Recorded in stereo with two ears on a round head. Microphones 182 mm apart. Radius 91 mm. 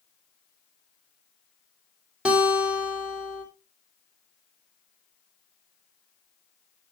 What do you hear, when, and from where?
2.2 s a guitar: 5° right (ahead or behind), 3 m